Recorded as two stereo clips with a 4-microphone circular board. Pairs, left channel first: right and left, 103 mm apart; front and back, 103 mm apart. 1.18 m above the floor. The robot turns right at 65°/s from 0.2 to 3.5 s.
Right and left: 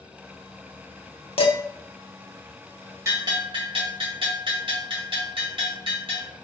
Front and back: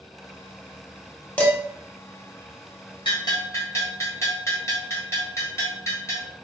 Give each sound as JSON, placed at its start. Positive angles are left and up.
{"t": 1.4, "sound": "dishes clattering", "azimuth_deg": -75, "distance_m": 0.7}
{"t": 3.0, "sound": "a bell", "azimuth_deg": 30, "distance_m": 1.2}